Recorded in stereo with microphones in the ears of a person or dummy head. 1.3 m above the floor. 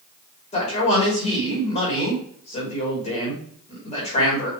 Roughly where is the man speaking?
Left.